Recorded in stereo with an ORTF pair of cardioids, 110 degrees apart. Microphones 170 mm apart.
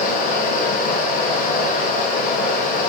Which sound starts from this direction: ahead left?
A fan, at 0.0 s.